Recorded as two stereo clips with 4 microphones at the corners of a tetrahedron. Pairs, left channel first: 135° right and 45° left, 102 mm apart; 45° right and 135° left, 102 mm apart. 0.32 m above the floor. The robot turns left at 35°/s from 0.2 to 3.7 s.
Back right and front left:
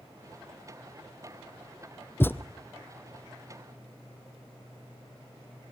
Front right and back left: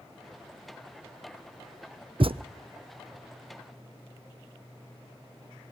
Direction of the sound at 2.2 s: 160° left.